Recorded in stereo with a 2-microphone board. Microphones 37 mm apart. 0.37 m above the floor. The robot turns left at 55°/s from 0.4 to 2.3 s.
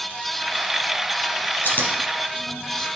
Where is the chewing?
70° left (ahead or behind), 3 m; by 2.9 s 35° left (ahead or behind), 3 m.